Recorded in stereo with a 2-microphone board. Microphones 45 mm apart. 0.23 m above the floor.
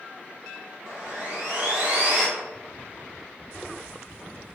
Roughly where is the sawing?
Right.